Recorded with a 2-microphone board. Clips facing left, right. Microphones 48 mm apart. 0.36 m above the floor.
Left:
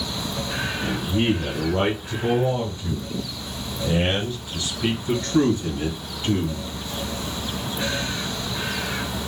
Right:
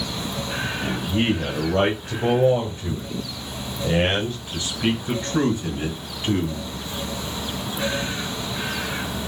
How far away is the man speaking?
About 1.6 m.